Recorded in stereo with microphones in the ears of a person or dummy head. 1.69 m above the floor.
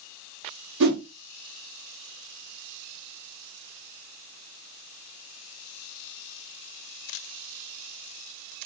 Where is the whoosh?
65° right (ahead or behind), 0.8 m.